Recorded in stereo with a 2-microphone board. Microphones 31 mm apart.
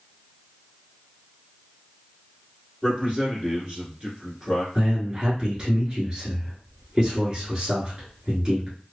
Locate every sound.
2.8 s a man speaking: 30° right (ahead or behind), 1.5 m
4.8 s a man speaking: 25° right (ahead or behind), 1.3 m